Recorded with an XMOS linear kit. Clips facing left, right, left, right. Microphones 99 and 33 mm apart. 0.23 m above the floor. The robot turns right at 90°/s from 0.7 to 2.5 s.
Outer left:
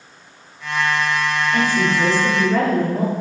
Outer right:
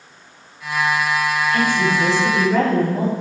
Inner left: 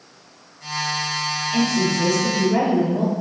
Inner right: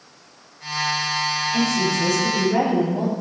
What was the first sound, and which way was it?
A woman speaking, 110° left.